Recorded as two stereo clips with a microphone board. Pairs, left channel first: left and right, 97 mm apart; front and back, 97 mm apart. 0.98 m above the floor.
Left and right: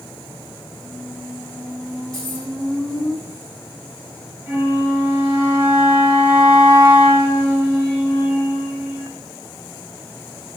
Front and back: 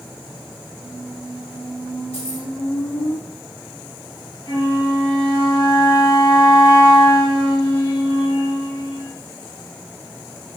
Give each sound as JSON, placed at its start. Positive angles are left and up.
{"t": 0.8, "sound": "a squeak", "azimuth_deg": 15, "distance_m": 7.0}
{"t": 2.1, "sound": "keys jangling", "azimuth_deg": 5, "distance_m": 7.0}
{"t": 4.5, "sound": "a flute", "azimuth_deg": -20, "distance_m": 6.5}